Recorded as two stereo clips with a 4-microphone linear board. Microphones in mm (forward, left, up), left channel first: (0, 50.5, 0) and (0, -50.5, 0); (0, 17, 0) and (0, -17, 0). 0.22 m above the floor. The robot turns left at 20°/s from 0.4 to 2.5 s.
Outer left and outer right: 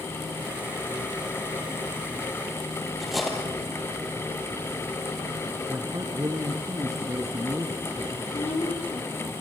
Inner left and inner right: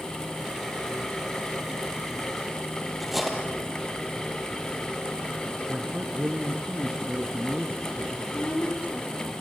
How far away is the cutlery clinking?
About 4 m.